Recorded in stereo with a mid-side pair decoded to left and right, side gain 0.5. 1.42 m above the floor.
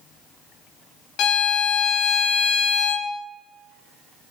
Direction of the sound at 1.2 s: 70° left.